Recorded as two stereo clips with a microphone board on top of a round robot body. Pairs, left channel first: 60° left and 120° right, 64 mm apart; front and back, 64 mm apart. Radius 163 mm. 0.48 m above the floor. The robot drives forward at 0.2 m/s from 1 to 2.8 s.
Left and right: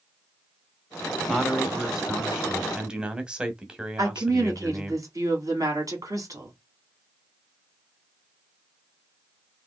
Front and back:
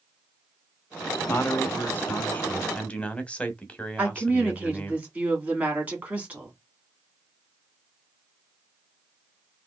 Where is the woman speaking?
120° right, 2 m.